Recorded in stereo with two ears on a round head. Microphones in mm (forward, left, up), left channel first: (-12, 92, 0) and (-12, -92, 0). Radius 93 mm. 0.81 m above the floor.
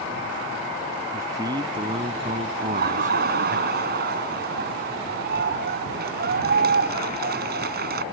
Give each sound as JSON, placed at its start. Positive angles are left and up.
{"t": 1.1, "sound": "a man speaking", "side_deg": -15}
{"t": 2.6, "sound": "laughter", "side_deg": -50}